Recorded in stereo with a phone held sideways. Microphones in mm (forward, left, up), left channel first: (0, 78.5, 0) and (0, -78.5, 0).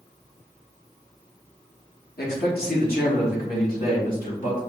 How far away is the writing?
I don't hear writing.